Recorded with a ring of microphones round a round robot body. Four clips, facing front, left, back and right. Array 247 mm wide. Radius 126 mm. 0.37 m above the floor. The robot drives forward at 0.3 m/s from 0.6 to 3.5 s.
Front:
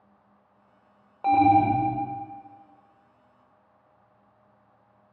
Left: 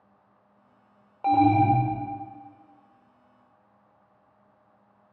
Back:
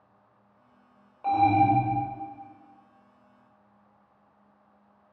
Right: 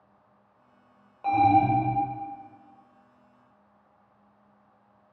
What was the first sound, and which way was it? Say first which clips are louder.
An alarm: left 1 dB, front 2 dB; 40° left.